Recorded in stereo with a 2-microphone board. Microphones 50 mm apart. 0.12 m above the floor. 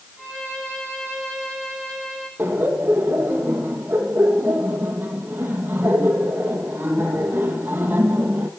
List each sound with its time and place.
0.2 s a violin: 5° right (ahead or behind), 7.5 m
2.4 s laughter: 35° right (ahead or behind), 3 m